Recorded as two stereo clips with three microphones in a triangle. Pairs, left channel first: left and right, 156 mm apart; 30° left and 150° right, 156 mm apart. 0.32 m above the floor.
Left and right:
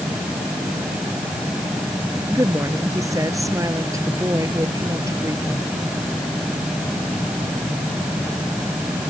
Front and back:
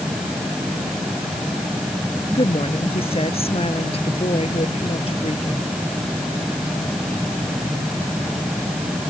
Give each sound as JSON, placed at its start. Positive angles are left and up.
{"t": 2.3, "sound": "a woman speaking", "azimuth_deg": -20}